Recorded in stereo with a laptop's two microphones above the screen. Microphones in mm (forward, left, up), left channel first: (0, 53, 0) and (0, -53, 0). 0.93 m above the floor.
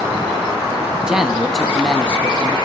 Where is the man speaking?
5° right (ahead or behind), 1.6 m; by 2.6 s 15° left (ahead or behind), 2 m.